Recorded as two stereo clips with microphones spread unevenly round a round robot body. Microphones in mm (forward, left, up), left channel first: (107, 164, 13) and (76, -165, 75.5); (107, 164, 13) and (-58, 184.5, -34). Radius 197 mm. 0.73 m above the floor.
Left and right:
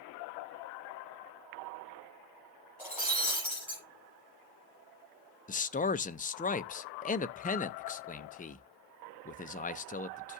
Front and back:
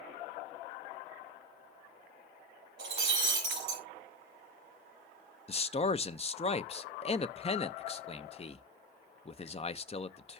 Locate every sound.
2.8 s breaking glass: straight behind, 5 m
5.5 s a man speaking: 50° left, 0.7 m